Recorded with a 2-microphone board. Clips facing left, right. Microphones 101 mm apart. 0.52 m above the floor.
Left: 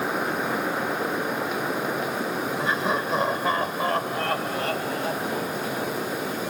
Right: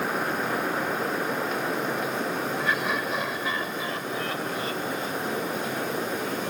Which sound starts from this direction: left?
Laughter, at 2.6 s.